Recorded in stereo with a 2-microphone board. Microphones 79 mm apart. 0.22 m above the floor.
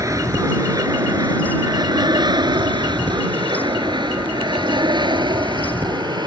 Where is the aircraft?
45° right (ahead or behind); by 6.3 s 60° right (ahead or behind).